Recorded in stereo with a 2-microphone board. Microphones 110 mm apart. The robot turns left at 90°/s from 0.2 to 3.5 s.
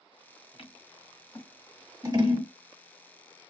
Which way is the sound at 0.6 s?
60° left (ahead or behind).